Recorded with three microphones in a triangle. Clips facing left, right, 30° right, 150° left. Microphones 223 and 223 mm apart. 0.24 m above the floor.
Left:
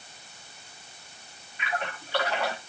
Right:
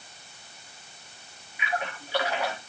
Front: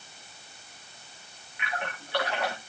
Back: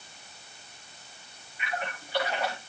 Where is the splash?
10° right, 7 m.